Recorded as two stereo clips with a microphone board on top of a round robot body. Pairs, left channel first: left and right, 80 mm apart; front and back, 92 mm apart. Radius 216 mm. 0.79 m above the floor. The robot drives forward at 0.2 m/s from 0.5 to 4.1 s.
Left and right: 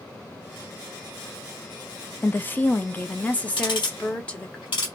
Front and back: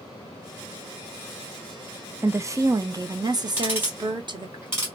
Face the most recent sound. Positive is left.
turn(degrees=115)